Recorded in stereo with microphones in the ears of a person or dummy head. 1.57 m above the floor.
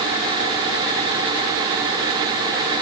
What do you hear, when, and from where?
Only background noise.